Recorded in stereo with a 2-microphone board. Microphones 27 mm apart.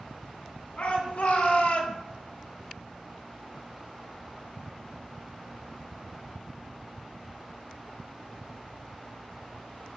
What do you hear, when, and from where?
0.8 s a shout: 60° left (ahead or behind), 2 m; by 2.0 s 50° left (ahead or behind), 1.2 m